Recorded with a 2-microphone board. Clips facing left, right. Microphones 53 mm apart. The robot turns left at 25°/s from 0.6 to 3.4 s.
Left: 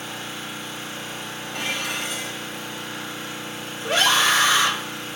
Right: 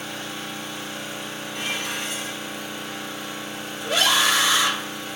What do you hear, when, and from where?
0.0 s an engine running: 150° left, 1.9 m; by 5.2 s 80° left, 1.9 m
1.5 s dishes clattering: 80° left, 0.9 m; by 2.6 s 55° left (ahead or behind), 0.9 m
3.8 s a scream: 45° left (ahead or behind), 0.7 m